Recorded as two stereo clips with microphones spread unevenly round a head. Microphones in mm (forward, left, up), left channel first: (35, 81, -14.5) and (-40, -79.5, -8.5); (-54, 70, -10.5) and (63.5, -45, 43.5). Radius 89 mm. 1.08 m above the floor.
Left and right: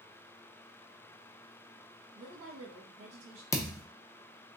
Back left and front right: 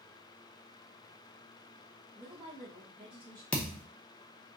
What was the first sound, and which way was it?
A woman speaking, 120° right.